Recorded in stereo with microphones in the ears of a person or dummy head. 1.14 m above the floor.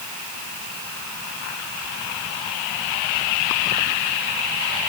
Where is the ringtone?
No ringtone in this recording.